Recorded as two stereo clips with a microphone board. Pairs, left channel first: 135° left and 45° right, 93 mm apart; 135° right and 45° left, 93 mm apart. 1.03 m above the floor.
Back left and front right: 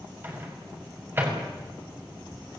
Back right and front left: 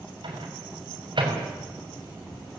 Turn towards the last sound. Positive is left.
turn(degrees=20)